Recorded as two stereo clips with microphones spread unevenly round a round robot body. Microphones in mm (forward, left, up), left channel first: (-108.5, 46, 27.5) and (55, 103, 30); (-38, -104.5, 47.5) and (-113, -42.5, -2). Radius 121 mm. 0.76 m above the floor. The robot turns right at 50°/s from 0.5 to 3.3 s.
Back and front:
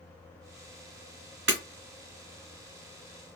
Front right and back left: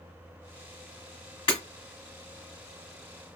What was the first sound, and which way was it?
Breaking glass, 25° right.